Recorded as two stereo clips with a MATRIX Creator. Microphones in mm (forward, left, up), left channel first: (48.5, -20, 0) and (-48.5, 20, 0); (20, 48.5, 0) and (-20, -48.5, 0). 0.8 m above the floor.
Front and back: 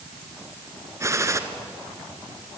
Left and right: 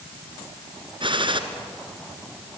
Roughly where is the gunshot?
Behind right.